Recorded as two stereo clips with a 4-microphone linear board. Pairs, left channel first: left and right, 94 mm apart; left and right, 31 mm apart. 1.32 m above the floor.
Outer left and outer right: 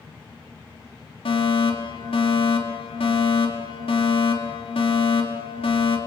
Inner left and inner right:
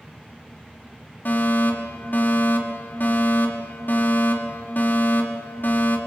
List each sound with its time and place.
1.2 s a fire alarm: 75° left (ahead or behind), 5 m